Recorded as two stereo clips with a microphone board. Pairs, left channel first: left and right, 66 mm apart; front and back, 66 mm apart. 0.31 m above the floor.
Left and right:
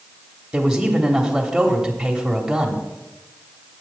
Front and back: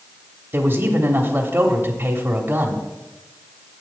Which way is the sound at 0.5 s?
165° right.